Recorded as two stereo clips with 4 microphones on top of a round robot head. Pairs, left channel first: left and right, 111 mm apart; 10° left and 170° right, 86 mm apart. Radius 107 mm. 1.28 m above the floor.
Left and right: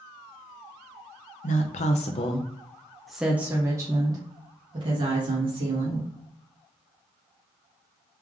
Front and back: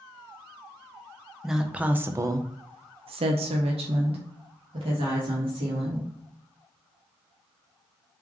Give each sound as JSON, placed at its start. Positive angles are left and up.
{"t": 1.4, "sound": "a woman speaking", "azimuth_deg": 105, "distance_m": 0.8}